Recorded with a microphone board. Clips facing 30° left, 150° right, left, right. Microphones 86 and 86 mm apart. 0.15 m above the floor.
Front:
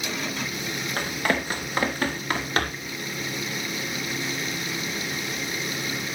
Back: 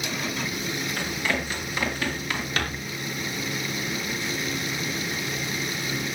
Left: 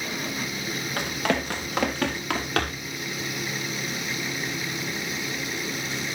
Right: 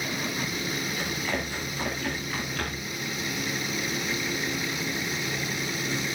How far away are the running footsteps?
About 5 m.